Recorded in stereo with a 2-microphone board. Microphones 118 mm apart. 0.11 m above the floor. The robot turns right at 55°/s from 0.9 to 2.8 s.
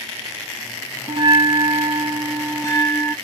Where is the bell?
60° right, 1.2 m; by 3.1 s 35° left, 1.2 m.